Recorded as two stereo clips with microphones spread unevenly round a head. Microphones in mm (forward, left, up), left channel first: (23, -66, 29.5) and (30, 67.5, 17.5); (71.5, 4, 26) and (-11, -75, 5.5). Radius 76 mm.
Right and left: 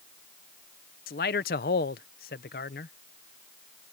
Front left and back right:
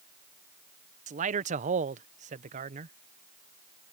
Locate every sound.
1.1 s a man speaking: 120° right